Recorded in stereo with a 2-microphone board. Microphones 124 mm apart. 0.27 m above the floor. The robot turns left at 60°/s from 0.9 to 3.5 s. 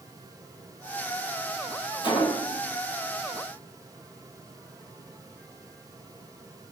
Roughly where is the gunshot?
Left.